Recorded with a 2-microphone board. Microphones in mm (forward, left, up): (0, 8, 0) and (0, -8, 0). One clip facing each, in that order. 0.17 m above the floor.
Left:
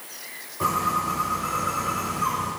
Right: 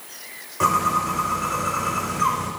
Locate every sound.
0.6 s a bird: 65° right (ahead or behind), 4 m